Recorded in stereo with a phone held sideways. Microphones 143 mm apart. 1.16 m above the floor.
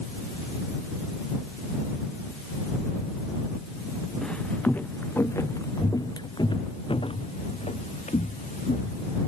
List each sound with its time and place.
4.2 s footsteps: 5° left (ahead or behind); by 9.0 s 60° left (ahead or behind)